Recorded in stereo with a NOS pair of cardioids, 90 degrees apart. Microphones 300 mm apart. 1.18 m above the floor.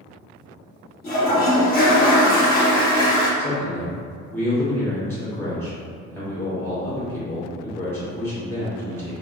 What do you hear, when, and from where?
1.0 s a toilet flushing: 30° left, 1.4 m
3.4 s a man speaking: 10° left, 1.7 m